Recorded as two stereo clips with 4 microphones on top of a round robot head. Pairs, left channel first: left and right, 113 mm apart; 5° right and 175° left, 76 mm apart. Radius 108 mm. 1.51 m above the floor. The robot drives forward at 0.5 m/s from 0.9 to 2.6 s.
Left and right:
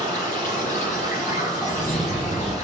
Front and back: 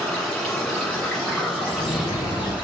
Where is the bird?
5° left, 1.9 m; by 2.5 s 10° left, 1.5 m.